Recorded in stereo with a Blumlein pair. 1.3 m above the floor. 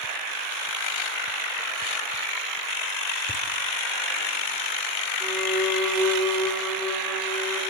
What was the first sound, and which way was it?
Laughter, 5° right.